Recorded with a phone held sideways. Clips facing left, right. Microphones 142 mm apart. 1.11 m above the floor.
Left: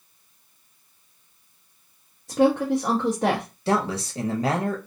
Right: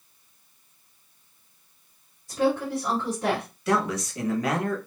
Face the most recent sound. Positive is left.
turn(degrees=30)  # may be behind; listen again after turning